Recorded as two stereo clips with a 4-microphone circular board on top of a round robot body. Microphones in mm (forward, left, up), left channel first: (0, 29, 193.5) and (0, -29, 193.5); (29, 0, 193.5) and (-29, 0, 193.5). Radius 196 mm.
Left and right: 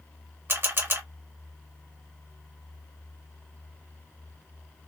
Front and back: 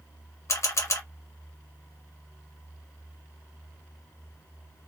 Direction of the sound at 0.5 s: 40° right.